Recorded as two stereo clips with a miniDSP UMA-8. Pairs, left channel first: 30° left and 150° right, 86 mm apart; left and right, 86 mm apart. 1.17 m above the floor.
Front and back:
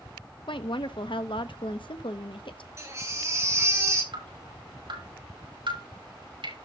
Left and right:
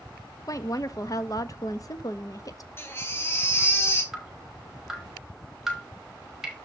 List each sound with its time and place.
0.5 s a woman speaking: 45° left, 1.2 m
2.8 s a baby crying: 155° left, 3 m
4.1 s dripping: 175° right, 6.5 m